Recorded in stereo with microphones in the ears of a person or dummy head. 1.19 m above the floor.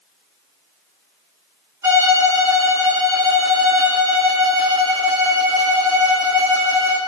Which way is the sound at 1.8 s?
15° right (ahead or behind).